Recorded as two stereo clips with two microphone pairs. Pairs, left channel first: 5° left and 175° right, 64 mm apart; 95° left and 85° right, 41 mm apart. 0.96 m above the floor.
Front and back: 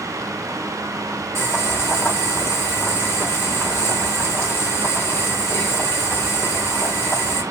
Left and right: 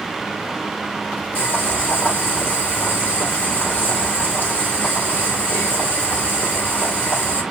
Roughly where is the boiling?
Ahead left.